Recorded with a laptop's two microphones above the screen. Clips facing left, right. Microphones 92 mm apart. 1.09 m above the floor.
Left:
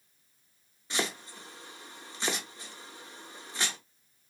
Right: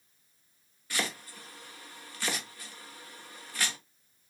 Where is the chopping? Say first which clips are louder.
Left 1 dB; 20° left (ahead or behind), 0.7 m.